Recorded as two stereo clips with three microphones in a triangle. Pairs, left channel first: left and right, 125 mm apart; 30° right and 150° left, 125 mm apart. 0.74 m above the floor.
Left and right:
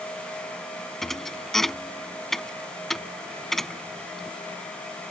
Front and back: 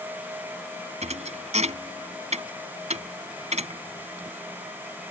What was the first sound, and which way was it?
A thud, straight behind.